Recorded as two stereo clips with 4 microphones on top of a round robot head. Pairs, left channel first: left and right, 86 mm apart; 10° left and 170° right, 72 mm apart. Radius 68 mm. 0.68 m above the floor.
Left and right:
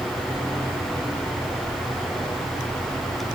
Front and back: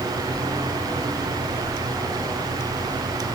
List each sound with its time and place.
Only background noise.